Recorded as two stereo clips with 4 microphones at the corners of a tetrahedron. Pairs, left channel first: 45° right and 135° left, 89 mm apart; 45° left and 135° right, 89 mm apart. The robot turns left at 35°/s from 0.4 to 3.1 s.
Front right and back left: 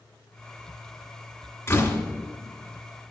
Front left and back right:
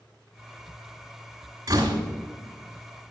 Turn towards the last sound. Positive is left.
turn(degrees=-150)